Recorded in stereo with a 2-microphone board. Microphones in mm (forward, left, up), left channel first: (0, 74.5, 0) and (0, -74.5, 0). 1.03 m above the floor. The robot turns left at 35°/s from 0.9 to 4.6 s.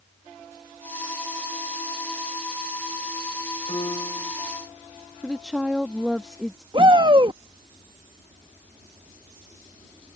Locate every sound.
3.7 s a piano: 40° left (ahead or behind); by 4.3 s 15° left (ahead or behind)
5.2 s a woman speaking: centre (ahead or behind)
6.7 s a shout: 35° right (ahead or behind)